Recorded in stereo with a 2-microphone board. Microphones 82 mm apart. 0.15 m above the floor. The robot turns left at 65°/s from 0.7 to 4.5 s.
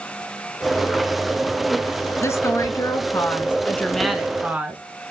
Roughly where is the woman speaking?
Behind left.